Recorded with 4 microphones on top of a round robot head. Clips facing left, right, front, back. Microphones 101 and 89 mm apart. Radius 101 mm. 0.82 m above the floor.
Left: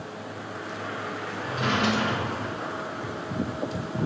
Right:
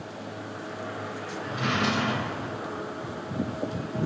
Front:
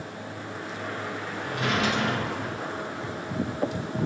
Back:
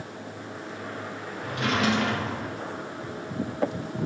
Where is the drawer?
140° left, 1.3 m.